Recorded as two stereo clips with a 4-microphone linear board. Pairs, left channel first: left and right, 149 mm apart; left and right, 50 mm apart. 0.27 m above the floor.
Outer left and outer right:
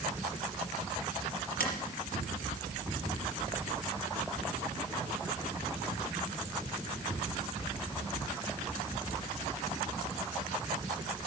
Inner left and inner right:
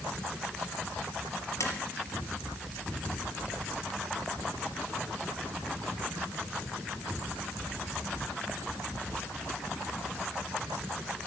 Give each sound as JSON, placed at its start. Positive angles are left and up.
{"t": 1.6, "sound": "tapping", "side_deg": 80, "distance_m": 4.0}